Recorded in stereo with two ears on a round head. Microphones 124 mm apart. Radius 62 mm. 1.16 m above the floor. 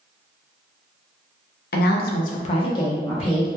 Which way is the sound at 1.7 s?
70° left (ahead or behind).